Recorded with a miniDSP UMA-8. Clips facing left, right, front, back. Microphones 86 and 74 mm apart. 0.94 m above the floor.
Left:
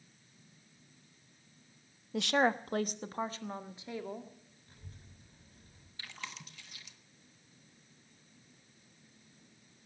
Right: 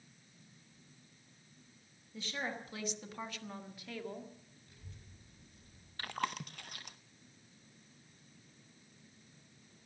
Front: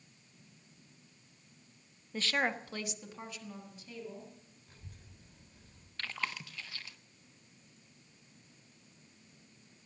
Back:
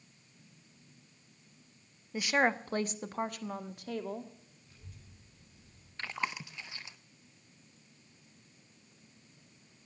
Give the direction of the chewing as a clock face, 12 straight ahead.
4 o'clock.